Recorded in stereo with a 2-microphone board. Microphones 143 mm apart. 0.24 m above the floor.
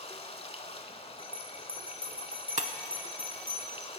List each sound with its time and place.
0.0 s running water: 45° left (ahead or behind), 0.8 m
1.2 s a bell: 35° left (ahead or behind), 3 m
2.6 s breaking glass: 55° right (ahead or behind), 0.7 m